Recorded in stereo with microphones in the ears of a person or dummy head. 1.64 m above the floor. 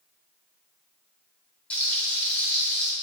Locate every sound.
1.7 s frying: 5° left (ahead or behind), 3.5 m